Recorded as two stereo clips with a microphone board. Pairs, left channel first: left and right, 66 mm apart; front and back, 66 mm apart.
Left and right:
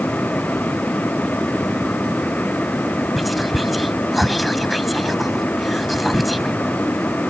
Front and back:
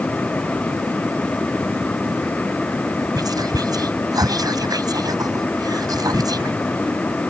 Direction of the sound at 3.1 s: Straight behind.